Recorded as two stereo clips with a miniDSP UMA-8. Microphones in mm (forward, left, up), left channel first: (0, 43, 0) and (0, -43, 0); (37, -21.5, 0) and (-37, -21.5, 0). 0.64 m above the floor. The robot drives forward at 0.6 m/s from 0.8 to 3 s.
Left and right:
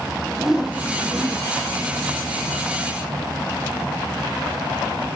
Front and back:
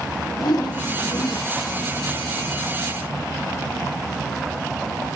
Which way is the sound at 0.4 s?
5° right.